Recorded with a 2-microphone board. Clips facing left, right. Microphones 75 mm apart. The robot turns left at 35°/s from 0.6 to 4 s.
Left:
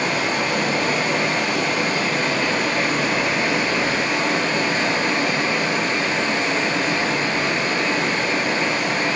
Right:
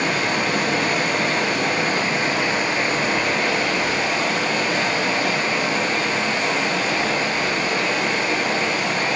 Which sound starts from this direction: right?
Running water, at 0.0 s.